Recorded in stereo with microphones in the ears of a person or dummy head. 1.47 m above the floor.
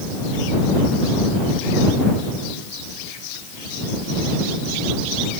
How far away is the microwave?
No microwave in this recording.